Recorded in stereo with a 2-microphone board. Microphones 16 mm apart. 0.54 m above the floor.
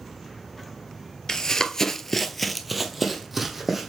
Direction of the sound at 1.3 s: 45° left (ahead or behind).